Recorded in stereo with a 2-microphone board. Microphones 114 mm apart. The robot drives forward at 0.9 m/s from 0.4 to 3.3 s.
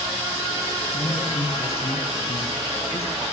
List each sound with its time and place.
0.9 s a woman speaking: 55° left (ahead or behind), 3 m; by 3.2 s 60° left (ahead or behind), 3 m